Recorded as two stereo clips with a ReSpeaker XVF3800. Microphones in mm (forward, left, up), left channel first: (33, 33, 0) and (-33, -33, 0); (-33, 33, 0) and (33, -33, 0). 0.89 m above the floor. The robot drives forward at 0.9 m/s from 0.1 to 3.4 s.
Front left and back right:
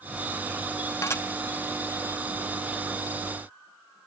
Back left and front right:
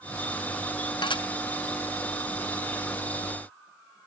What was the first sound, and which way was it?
Dishes clattering, 100° left.